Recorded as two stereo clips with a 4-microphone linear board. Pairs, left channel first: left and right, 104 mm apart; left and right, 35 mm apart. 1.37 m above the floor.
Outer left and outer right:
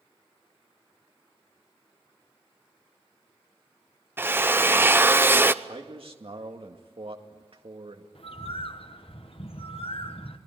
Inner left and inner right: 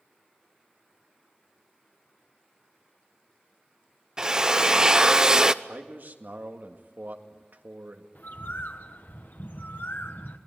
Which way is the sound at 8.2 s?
65° left (ahead or behind).